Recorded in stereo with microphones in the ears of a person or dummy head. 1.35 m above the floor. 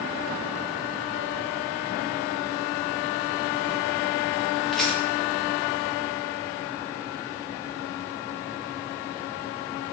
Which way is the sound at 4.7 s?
Centre (ahead or behind).